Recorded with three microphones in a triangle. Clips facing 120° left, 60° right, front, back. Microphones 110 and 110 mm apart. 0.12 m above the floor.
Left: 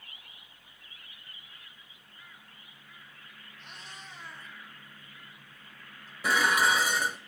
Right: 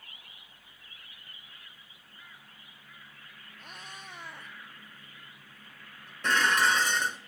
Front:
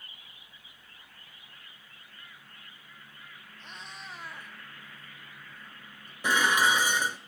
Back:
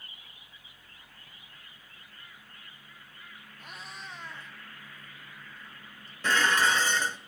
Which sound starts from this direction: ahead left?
Dishes clattering, at 6.2 s.